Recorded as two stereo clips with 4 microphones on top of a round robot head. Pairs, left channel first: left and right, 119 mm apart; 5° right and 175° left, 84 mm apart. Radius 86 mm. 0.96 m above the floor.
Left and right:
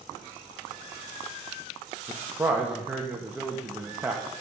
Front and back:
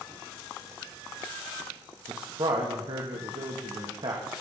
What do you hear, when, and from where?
2.1 s a man speaking: 165° right, 1.4 m